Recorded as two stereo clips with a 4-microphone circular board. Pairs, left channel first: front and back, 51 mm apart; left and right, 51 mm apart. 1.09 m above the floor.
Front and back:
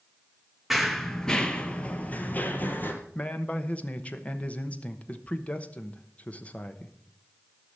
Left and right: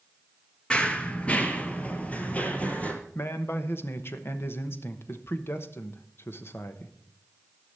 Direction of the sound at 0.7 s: 95° left.